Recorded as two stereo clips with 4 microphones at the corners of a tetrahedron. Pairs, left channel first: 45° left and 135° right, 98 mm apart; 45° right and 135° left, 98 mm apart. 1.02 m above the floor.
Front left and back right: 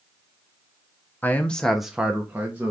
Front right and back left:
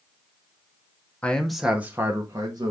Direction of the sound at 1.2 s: 5° left.